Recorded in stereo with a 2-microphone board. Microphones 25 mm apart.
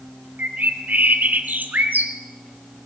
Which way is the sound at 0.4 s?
90° right.